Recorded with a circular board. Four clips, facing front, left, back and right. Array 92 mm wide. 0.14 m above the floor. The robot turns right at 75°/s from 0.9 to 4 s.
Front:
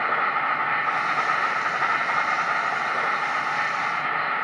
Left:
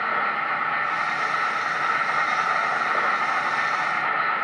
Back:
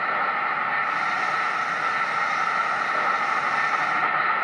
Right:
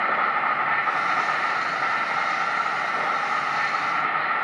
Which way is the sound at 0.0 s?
50° right.